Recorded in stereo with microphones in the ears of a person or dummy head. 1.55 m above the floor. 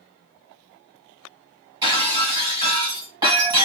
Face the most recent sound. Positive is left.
turn(degrees=-20)  # may be behind; listen again after turning